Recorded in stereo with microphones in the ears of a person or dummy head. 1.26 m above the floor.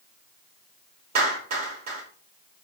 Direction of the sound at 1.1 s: 50° right (ahead or behind).